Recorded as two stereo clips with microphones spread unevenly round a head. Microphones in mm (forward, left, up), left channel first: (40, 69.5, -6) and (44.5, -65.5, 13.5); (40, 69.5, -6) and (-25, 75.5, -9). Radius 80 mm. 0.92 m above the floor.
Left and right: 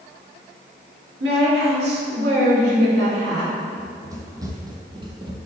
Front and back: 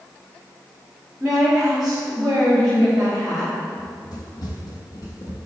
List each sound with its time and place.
1.2 s a woman speaking: 100° right, 3 m; by 3.5 s 95° right, 4.5 m
3.8 s running footsteps: 25° right, 2.5 m; by 5.4 s 50° right, 1.8 m